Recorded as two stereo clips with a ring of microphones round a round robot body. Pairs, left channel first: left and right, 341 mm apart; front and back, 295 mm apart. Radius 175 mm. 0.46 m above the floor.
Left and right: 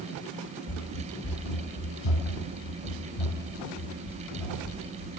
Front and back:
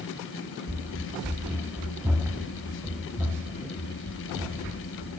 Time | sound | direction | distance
0.7 | running footsteps | 95° left | 1.7 m